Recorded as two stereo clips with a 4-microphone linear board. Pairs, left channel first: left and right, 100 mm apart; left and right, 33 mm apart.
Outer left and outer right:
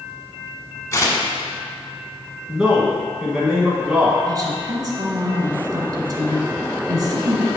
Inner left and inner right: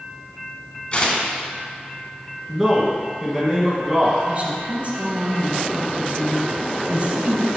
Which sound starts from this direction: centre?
A man speaking, at 2.5 s.